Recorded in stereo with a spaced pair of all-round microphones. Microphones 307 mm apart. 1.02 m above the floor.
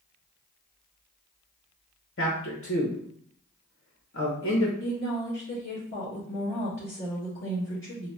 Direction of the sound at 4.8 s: 45° left (ahead or behind).